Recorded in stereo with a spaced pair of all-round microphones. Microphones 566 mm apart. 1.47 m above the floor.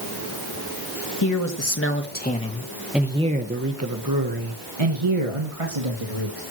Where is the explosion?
No explosion in this recording.